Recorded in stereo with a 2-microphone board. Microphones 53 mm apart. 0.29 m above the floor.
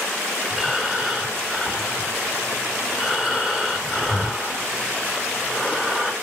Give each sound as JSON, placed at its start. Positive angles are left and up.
{"t": 0.5, "sound": "breathing", "side_deg": -10, "distance_m": 1.9}